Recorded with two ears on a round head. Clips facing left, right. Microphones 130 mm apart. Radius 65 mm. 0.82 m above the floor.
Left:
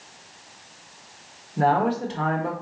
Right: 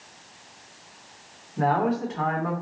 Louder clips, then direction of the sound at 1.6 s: Left 2 dB; 35° left (ahead or behind).